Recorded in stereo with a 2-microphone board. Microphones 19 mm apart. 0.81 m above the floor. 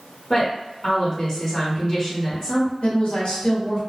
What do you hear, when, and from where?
0.3 s a woman speaking: 35° left (ahead or behind), 1.5 m
2.8 s a woman speaking: 60° left (ahead or behind), 1.8 m